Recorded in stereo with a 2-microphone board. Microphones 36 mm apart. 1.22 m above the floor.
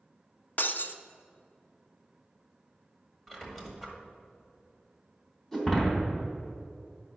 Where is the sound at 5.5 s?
15° left (ahead or behind), 2.5 m.